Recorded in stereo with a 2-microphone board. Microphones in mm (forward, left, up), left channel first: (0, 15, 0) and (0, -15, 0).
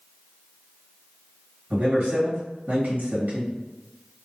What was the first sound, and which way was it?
A man speaking, 75° right (ahead or behind).